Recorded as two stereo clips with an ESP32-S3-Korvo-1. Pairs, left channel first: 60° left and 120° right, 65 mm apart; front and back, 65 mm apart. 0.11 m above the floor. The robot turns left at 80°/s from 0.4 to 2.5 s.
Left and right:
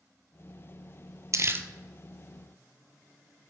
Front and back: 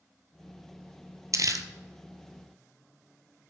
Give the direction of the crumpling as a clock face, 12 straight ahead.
5 o'clock.